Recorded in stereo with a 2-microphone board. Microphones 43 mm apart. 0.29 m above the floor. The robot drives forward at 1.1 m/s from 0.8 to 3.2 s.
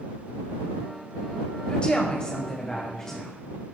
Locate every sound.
1.7 s a woman speaking: 25° left (ahead or behind), 1.3 m; by 3.4 s 15° left (ahead or behind), 2 m